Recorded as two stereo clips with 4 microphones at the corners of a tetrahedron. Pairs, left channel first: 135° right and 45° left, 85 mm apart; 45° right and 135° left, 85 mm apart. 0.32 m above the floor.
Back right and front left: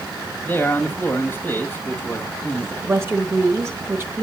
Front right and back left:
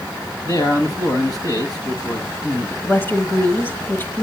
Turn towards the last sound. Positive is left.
turn(degrees=5)